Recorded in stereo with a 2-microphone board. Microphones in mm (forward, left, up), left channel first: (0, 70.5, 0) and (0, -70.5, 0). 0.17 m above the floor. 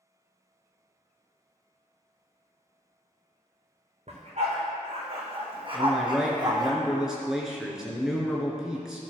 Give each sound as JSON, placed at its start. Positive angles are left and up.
{"t": 4.1, "sound": "a dog barking", "side_deg": -55, "distance_m": 3.0}
{"t": 5.7, "sound": "a man speaking", "side_deg": -5, "distance_m": 2.5}